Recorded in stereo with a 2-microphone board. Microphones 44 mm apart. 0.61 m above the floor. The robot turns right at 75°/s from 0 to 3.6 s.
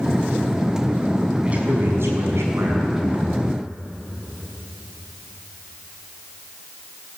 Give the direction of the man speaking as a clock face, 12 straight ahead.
5 o'clock.